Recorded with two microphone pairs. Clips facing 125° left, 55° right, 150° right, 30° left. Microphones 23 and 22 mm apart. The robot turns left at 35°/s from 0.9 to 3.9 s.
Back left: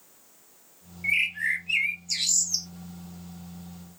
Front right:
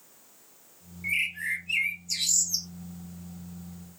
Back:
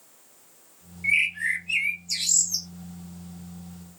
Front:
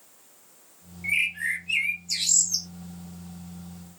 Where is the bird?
155° left, 0.6 m; by 2.7 s 95° left, 0.6 m.